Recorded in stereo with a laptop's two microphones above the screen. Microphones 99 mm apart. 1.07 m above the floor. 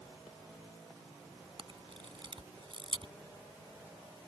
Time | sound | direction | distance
1.6 | a camera shutter | 55° right (ahead or behind) | ?